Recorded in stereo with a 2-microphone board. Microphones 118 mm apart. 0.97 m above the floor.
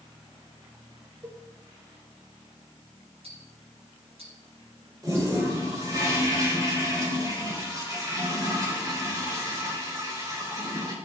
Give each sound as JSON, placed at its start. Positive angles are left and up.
{"t": 1.2, "sound": "a cowbell", "side_deg": -45, "distance_m": 4.0}
{"t": 3.2, "sound": "ticking", "side_deg": -60, "distance_m": 4.0}
{"t": 5.0, "sound": "a toilet flushing", "side_deg": -30, "distance_m": 4.5}